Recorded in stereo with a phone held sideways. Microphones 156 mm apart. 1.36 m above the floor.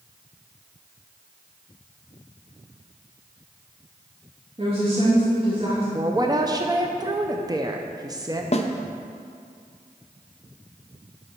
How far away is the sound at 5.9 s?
About 0.6 m.